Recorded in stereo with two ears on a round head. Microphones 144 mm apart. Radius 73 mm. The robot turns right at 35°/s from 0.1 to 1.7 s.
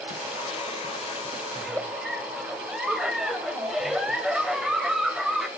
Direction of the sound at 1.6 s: 5° right (ahead or behind).